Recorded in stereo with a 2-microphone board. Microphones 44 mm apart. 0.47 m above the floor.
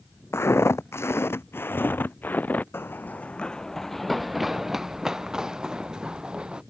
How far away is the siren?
I don't hear a siren.